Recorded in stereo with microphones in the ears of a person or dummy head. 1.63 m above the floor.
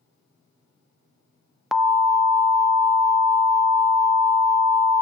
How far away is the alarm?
About 0.6 m.